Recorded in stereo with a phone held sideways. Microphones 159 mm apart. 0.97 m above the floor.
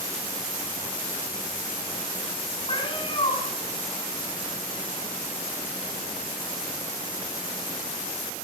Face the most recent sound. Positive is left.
turn(degrees=35)  # may be behind; listen again after turning